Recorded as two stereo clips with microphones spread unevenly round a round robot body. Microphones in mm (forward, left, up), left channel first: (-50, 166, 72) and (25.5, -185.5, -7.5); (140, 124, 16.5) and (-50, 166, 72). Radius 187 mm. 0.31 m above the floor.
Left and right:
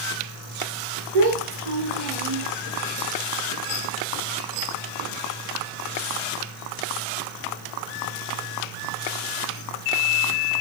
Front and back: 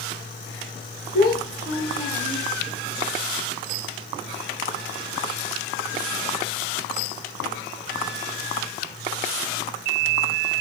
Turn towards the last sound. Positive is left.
turn(degrees=-100)